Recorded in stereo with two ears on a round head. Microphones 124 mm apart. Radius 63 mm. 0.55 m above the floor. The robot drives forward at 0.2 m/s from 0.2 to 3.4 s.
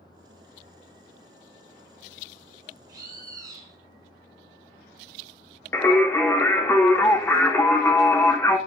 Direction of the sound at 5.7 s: 15° left (ahead or behind).